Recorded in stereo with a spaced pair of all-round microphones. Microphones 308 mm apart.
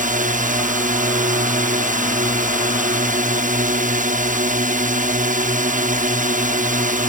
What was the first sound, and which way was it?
A drone, 25° right (ahead or behind).